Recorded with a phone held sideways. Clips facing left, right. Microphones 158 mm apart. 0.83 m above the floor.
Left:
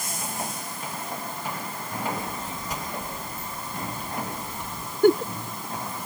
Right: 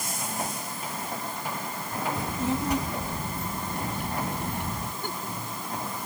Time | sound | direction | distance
2.2 | a child speaking | 70° right (ahead or behind) | ?
5.0 | a giggle | 70° left (ahead or behind) | ?